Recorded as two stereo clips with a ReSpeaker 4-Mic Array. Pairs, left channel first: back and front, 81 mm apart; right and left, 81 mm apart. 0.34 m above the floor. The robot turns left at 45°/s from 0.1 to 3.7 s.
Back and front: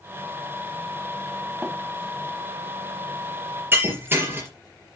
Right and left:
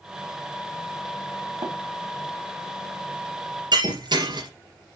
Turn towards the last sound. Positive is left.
turn(degrees=65)